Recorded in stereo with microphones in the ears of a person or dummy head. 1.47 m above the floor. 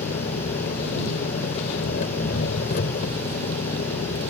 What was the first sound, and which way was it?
An engine running, 55° left (ahead or behind).